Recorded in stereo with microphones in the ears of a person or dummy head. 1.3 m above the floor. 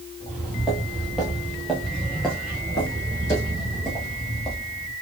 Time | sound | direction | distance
0.2 | footsteps | centre (ahead or behind) | 2 m